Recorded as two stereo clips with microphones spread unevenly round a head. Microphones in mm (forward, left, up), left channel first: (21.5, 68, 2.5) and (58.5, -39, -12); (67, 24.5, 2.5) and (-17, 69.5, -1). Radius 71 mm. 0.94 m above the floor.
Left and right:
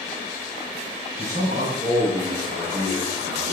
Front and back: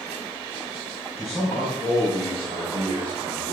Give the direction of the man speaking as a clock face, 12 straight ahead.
3 o'clock.